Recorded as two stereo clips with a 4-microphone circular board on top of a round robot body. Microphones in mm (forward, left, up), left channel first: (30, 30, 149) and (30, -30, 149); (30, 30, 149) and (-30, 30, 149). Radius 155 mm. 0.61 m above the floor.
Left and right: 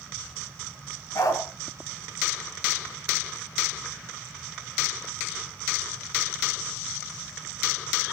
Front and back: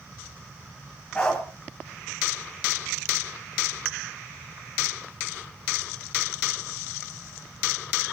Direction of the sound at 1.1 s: 75° left.